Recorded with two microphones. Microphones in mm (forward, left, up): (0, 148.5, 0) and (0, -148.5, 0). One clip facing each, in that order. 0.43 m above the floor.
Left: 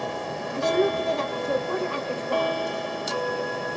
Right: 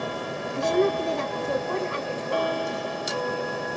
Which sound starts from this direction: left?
A woman speaking, at 0.5 s.